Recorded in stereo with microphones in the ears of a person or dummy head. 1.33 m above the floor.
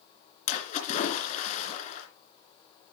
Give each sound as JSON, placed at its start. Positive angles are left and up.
{"t": 0.5, "sound": "a splash", "side_deg": 40, "distance_m": 3.0}